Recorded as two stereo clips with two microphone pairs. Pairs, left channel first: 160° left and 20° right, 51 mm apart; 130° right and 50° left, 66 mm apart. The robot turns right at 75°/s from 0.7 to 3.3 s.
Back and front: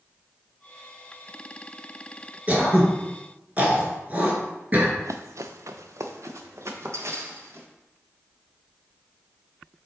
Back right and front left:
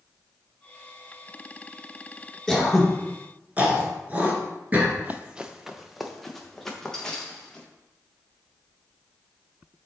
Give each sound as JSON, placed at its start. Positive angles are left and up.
{"t": 2.5, "sound": "throat clearing", "azimuth_deg": -55, "distance_m": 1.9}
{"t": 5.0, "sound": "running footsteps", "azimuth_deg": -5, "distance_m": 0.6}